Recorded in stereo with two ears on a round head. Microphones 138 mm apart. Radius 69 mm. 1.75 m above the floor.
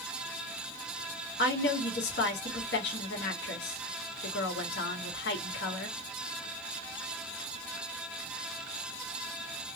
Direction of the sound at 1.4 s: 80° left.